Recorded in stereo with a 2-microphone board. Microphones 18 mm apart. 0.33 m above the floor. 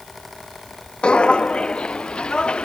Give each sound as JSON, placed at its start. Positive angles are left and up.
{"t": 1.0, "sound": "footsteps", "side_deg": 65}